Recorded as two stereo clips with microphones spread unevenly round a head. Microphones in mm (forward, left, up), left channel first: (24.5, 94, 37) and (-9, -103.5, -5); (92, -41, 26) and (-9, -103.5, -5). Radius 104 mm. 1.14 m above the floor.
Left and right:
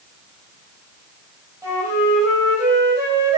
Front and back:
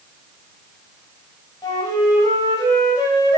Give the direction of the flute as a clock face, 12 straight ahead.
1 o'clock.